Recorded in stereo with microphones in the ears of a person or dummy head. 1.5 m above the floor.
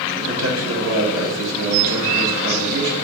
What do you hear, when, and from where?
0.2 s a man speaking: 80° right, 2 m